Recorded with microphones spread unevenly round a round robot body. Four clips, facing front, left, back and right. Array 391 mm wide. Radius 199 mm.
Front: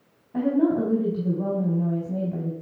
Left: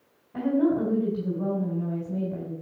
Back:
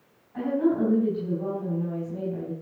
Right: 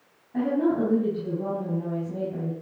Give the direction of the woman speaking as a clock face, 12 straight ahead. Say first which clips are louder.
Even, front 3 dB; 12 o'clock.